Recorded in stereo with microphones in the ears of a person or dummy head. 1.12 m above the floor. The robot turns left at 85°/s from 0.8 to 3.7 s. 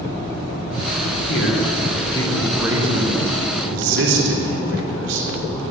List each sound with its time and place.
1.3 s a man speaking: 75° left (ahead or behind), 3 m; by 5.6 s 80° right, 3 m